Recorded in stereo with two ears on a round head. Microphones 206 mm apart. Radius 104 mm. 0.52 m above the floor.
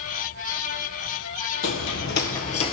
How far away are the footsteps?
About 0.9 m.